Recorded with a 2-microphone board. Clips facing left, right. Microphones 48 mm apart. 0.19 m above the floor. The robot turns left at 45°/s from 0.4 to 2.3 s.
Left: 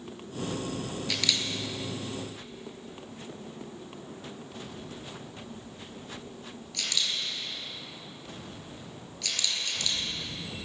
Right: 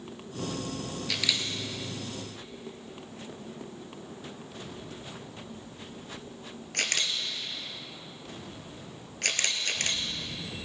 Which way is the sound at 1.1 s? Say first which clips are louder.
Even; centre (ahead or behind).